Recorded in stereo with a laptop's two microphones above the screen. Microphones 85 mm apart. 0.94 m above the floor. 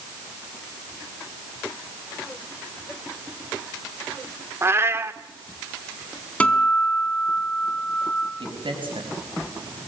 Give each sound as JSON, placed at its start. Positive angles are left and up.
{"t": 4.6, "sound": "a cat meowing", "side_deg": -30, "distance_m": 1.0}
{"t": 6.4, "sound": "a guitar", "side_deg": 15, "distance_m": 3.5}
{"t": 8.4, "sound": "a man speaking", "side_deg": -85, "distance_m": 5.5}